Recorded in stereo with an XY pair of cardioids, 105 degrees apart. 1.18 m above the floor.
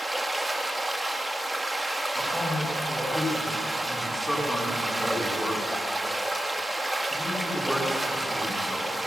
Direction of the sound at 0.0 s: 10° right.